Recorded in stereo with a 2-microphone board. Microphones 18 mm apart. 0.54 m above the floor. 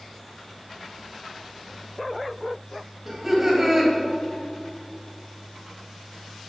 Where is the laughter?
15° right (ahead or behind), 3 m.